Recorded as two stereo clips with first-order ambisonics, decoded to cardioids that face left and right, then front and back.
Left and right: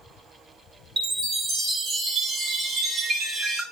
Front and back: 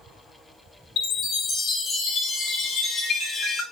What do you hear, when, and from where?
1.0 s a chime: 40° right, 0.7 m